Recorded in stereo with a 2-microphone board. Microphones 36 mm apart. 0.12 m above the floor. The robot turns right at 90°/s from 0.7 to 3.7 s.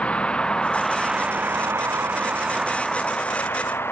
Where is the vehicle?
35° left (ahead or behind); by 3.9 s 85° left.